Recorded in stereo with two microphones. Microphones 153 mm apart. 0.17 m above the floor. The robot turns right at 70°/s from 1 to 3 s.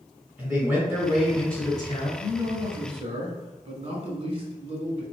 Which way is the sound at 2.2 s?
145° right.